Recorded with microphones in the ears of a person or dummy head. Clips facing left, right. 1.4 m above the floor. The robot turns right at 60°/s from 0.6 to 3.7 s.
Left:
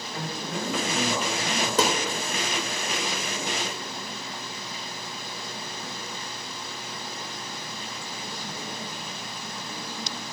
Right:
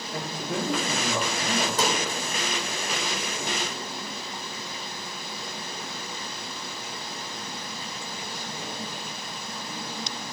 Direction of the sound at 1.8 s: 50° left (ahead or behind).